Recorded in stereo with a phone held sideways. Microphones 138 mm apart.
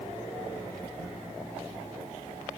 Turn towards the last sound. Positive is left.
No sound to turn to.